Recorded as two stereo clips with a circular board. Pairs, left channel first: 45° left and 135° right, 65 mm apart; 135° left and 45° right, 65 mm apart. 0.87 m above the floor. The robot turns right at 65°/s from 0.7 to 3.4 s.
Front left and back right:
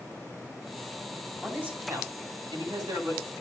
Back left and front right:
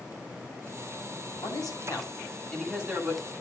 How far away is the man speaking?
About 8 m.